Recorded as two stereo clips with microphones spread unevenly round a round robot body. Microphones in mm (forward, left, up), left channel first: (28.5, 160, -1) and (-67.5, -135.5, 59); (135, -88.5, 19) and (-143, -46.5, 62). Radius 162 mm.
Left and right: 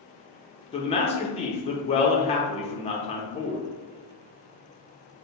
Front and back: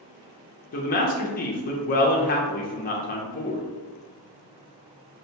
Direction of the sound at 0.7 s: 20° left.